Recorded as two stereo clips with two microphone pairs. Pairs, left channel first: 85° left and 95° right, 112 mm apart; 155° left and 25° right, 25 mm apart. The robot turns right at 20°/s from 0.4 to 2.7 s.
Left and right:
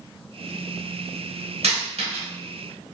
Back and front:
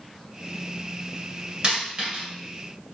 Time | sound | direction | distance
1.6 | a dropped coin | 80° right | 1.8 m